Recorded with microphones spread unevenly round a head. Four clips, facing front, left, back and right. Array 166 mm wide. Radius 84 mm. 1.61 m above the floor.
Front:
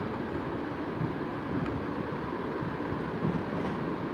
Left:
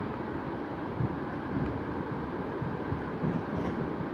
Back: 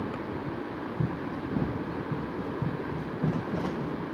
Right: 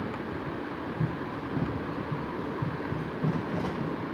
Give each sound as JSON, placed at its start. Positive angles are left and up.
{"t": 1.0, "sound": "running footsteps", "azimuth_deg": 180, "distance_m": 4.5}